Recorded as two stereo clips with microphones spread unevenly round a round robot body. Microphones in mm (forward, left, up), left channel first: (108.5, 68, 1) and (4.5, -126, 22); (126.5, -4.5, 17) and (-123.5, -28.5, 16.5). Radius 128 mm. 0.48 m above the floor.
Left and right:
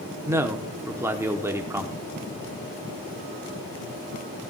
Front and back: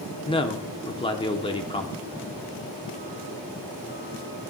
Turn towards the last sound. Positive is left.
turn(degrees=-40)